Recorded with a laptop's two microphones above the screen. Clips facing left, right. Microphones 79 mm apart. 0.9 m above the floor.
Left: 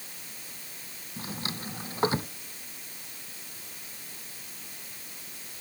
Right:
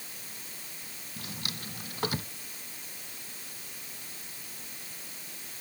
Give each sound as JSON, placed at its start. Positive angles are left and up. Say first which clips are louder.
{"t": 1.2, "sound": "a drawer", "louder": "left 5 dB", "side_deg": 30}